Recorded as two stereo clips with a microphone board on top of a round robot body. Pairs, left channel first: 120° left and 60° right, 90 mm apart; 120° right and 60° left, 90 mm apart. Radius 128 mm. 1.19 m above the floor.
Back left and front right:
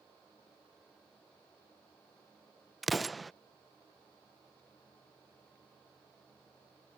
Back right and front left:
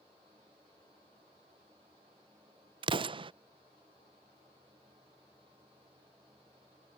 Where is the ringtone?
I don't hear a ringtone.